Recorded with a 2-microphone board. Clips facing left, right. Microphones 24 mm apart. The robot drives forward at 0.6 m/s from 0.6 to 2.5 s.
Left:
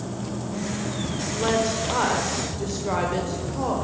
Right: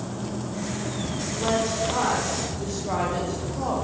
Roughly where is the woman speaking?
Left.